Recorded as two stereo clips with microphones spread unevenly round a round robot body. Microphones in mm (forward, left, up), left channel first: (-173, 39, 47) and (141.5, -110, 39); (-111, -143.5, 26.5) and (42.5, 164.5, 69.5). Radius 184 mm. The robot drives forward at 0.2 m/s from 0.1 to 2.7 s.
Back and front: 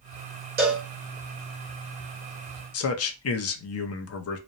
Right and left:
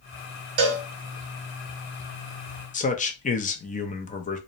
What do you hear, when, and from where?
0.6 s a cowbell: 35° left, 0.9 m
2.7 s a man speaking: 170° right, 0.5 m